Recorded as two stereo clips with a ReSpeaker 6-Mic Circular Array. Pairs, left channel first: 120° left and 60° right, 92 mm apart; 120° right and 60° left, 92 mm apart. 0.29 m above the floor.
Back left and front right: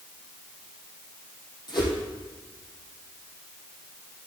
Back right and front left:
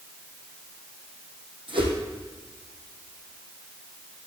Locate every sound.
1.7 s a whoosh: 85° left, 3 m